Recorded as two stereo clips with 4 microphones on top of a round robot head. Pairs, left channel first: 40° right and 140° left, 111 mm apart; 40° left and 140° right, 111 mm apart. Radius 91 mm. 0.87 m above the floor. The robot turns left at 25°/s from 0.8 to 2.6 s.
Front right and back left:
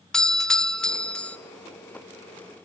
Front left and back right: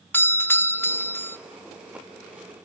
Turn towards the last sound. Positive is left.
turn(degrees=-10)